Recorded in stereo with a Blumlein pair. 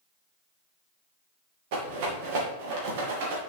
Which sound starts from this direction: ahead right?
A rattle, at 1.7 s.